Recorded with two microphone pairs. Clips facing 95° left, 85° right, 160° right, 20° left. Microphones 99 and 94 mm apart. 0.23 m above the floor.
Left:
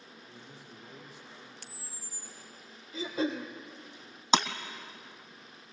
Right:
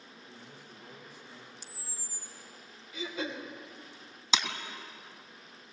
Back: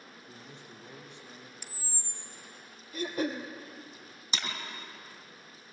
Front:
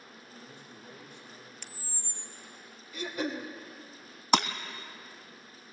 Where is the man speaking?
175° right, 6.5 m; by 1.5 s 170° right, 5.5 m.